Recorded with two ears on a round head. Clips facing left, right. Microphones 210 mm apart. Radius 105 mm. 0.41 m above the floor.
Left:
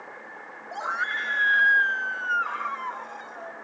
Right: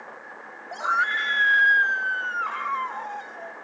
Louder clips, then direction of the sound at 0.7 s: Right 3 dB; 5° right (ahead or behind).